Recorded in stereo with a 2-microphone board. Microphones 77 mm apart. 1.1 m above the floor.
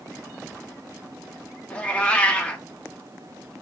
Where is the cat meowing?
15° left (ahead or behind), 0.6 m.